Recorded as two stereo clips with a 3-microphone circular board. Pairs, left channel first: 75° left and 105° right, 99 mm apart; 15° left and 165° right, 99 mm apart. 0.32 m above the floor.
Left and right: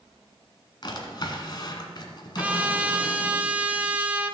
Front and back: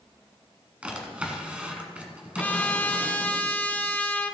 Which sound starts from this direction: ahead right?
A trumpet, at 2.4 s.